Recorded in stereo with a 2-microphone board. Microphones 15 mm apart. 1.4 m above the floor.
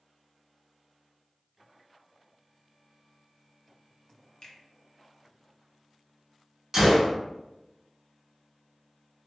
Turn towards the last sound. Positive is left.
turn(degrees=-25)  # may be behind; listen again after turning